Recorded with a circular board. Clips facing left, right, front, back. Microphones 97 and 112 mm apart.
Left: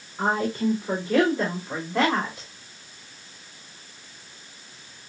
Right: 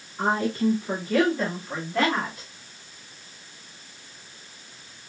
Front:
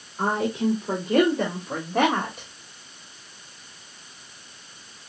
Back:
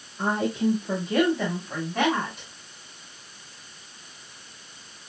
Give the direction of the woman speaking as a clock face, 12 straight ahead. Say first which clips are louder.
Even, front 1 dB; 11 o'clock.